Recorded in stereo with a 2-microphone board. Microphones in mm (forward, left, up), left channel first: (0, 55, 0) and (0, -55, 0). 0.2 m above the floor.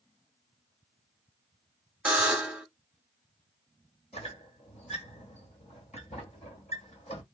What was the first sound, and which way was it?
A buzzer, 10° right (ahead or behind).